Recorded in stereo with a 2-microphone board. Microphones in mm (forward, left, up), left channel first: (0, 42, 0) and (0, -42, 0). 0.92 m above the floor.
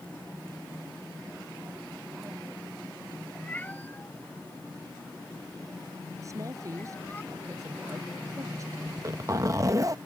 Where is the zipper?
35° right (ahead or behind).